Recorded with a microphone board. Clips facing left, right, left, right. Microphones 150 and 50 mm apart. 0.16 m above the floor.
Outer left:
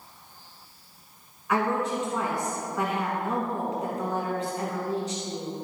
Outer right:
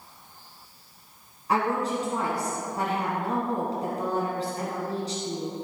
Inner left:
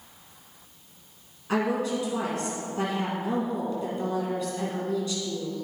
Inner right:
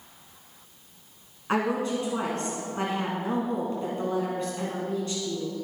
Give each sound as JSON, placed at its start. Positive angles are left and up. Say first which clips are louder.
{"t": 1.5, "sound": "a woman speaking", "louder": "even, even", "side_deg": -35, "distance_m": 1.6}